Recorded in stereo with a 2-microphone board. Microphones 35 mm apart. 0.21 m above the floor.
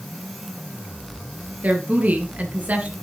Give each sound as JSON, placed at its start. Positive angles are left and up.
{"t": 1.6, "sound": "a woman speaking", "side_deg": -50, "distance_m": 3.5}